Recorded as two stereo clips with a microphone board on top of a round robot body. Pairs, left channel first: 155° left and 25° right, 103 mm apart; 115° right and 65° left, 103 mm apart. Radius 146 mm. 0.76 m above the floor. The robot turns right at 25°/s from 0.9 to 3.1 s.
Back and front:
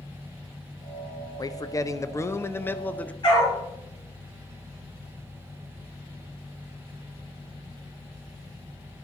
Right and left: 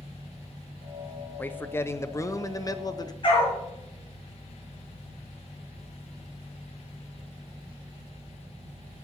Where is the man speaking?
175° right, 1.0 m; by 3.1 s 135° right, 1.0 m.